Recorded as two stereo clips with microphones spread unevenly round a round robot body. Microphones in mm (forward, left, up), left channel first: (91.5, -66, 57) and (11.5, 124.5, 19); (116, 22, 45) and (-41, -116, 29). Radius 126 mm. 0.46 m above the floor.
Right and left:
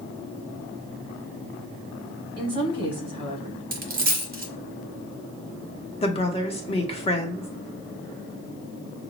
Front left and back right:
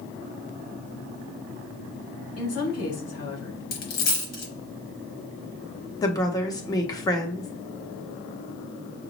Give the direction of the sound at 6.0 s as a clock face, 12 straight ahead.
1 o'clock.